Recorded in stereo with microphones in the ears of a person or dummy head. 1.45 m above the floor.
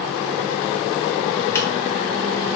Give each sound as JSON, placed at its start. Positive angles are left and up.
{"t": 1.6, "sound": "a microwave", "side_deg": 10, "distance_m": 1.8}